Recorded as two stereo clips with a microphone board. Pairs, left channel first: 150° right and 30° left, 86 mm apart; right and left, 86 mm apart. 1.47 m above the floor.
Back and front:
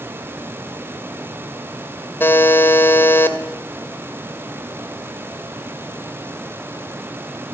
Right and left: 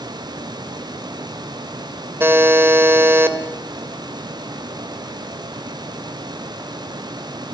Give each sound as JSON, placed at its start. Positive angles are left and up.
{"t": 2.2, "sound": "a buzzer", "azimuth_deg": 150, "distance_m": 2.0}